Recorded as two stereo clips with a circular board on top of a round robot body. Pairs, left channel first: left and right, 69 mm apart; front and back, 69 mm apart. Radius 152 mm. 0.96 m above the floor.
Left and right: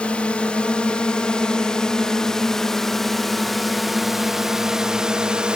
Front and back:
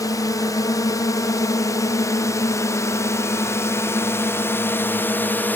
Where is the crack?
No crack in this recording.